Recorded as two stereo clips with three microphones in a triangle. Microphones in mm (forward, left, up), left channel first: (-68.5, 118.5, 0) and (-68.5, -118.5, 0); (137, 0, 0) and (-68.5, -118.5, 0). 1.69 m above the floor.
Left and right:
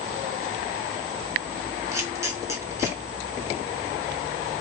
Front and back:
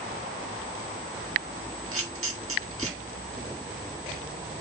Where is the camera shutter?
170° right, 2.5 m.